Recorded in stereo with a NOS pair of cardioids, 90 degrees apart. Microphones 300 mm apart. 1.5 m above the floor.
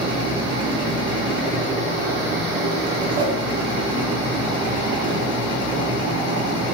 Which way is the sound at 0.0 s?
15° right.